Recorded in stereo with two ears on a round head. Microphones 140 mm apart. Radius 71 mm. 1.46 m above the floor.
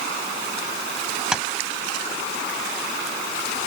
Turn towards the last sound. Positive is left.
turn(degrees=-5)  # may be behind; listen again after turning